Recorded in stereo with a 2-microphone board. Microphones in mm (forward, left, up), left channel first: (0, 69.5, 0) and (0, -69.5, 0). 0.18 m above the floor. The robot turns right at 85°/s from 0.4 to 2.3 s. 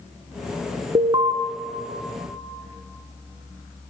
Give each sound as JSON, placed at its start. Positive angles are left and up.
{"t": 0.9, "sound": "an alarm", "azimuth_deg": -70, "distance_m": 1.1}